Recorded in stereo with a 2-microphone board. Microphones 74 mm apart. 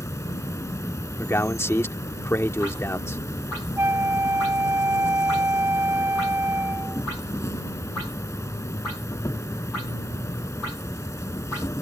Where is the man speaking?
35° left (ahead or behind).